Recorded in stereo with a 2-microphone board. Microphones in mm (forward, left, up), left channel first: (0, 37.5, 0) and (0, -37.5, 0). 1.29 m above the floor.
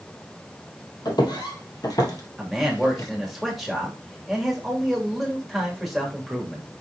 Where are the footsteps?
60° left (ahead or behind), 2.5 m; by 3.1 s 40° left (ahead or behind), 1.6 m.